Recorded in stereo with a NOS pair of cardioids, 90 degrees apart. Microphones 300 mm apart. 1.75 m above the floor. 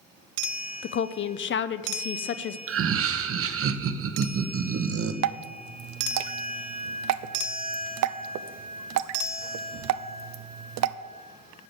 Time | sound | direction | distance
0.8 | a woman speaking | 40° left | 0.5 m
2.7 | laughter | 50° right | 1.0 m
5.2 | dripping | 65° right | 0.5 m